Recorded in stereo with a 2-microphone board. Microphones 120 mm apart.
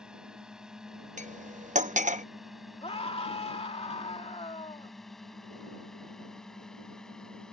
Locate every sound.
0.0 s a drone: 5° right (ahead or behind); by 7.5 s 5° left (ahead or behind)
1.2 s cutlery clinking: 75° right (ahead or behind)
2.8 s a scream: 50° left (ahead or behind)